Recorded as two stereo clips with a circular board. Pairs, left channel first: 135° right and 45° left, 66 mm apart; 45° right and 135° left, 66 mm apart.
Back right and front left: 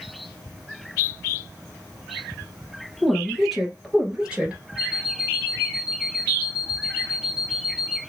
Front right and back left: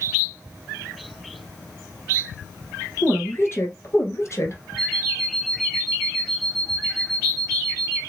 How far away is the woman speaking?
About 2.0 m.